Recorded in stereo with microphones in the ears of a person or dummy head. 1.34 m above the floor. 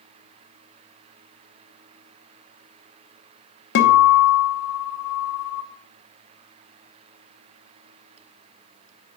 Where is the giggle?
I don't hear a giggle.